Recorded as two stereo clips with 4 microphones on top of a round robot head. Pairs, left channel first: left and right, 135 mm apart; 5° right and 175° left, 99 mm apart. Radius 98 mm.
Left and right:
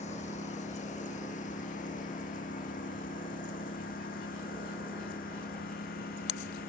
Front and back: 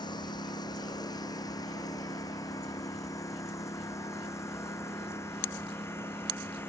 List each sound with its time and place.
0.0 s a lawn mower: 40° left; by 6.7 s 65° left